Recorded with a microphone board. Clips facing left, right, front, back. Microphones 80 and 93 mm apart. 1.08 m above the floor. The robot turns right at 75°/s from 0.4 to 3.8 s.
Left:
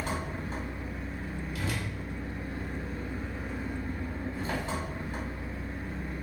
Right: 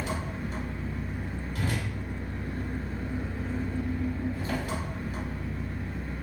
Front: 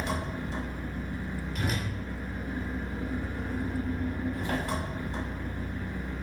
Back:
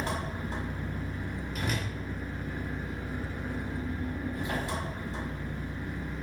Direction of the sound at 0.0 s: 130° left.